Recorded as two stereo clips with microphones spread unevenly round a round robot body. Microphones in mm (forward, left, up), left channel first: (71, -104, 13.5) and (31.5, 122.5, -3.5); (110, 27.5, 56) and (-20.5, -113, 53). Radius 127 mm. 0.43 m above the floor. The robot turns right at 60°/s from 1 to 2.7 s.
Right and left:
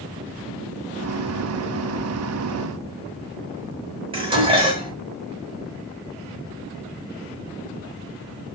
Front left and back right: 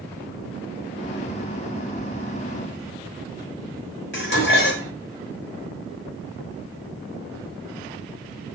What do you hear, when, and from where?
4.1 s dishes clattering: 35° left, 1.1 m